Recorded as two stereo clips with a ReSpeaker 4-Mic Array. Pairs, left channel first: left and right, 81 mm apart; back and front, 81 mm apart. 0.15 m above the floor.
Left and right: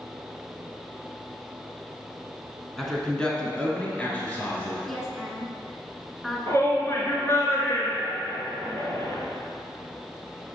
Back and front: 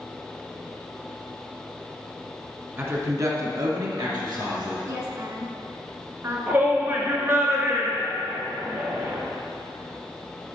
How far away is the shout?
About 2.5 m.